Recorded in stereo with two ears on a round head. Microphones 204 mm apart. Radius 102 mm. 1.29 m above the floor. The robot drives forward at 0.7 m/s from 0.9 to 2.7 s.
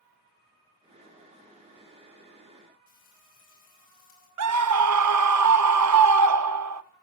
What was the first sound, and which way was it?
Frying, 60° left (ahead or behind).